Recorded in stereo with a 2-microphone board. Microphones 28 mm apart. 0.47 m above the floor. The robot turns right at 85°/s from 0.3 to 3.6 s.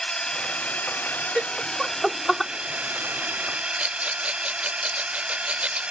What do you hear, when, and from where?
0.0 s a drone: 30° left; by 5.9 s 50° right
1.4 s laughter: 20° right (ahead or behind); by 2.5 s 10° left (ahead or behind)
3.8 s a rattle: 50° right (ahead or behind)